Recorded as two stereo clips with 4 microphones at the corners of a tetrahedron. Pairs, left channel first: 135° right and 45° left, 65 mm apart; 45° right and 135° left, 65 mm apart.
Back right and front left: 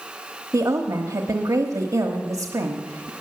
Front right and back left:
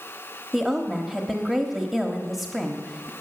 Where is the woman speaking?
45° left, 1.2 m.